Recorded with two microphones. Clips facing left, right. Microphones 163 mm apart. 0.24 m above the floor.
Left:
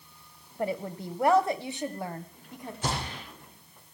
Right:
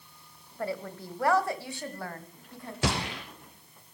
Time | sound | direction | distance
0.6 | a woman speaking | 20° left (ahead or behind) | 1.0 m
2.8 | a gunshot | 80° right | 3 m